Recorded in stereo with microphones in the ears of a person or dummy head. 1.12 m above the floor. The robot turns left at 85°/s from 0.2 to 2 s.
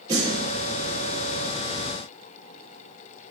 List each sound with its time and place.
0.1 s a snare drum: 20° right (ahead or behind), 1.1 m; by 0.3 s 30° right (ahead or behind), 1.1 m